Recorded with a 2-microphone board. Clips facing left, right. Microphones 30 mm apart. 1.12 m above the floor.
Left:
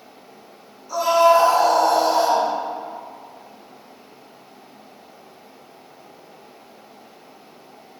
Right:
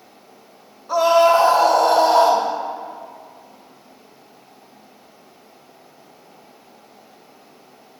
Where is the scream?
50° right (ahead or behind), 2.5 m; by 2.5 s 65° right (ahead or behind), 1.3 m.